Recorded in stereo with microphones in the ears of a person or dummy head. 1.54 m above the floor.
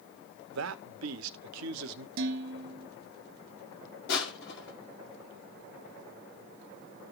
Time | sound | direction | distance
0.5 | a man speaking | 75° right (ahead or behind) | 0.7 m
2.2 | dishes clattering | 55° right (ahead or behind) | 1.0 m
4.1 | crushing | 65° left (ahead or behind) | 2.0 m